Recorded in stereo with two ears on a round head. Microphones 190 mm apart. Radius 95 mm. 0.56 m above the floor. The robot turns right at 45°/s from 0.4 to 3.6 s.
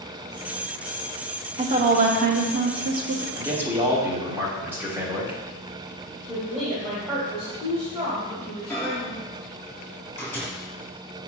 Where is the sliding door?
I don't hear a sliding door.